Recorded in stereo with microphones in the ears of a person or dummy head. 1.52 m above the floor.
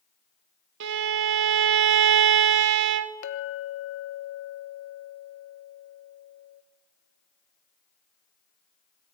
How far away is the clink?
About 1.2 m.